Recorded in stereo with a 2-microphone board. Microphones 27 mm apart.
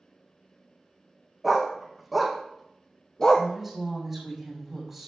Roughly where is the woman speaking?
Centre.